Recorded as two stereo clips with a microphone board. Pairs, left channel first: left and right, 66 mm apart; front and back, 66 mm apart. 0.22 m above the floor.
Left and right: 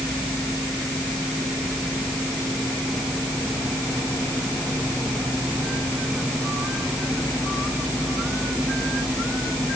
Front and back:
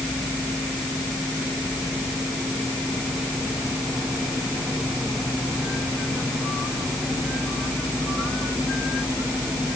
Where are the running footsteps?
No running footsteps in this recording.